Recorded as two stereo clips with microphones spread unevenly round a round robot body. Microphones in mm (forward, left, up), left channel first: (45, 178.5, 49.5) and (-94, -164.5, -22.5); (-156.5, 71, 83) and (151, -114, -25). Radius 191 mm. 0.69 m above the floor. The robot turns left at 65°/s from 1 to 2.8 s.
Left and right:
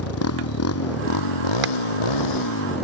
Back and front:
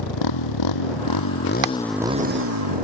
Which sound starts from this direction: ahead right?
Hammering, at 1.6 s.